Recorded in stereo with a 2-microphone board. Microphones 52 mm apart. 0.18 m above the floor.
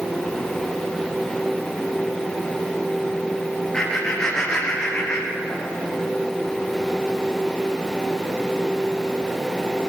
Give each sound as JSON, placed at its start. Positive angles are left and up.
{"t": 3.7, "sound": "laughter", "side_deg": 20, "distance_m": 4.5}